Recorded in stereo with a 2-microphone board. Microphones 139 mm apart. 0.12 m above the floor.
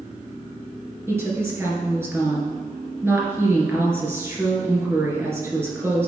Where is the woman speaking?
20° right (ahead or behind), 2 m.